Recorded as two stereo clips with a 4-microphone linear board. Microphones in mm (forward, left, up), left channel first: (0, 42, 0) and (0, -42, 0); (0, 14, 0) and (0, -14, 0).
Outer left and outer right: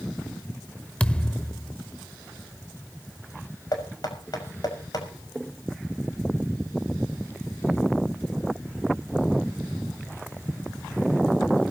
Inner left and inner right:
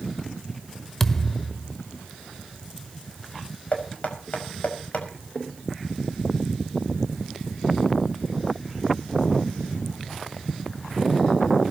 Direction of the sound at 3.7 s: 55° left (ahead or behind).